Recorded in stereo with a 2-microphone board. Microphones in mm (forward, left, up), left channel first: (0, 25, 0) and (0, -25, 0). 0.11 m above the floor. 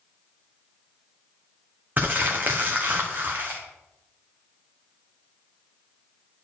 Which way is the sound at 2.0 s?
40° right (ahead or behind).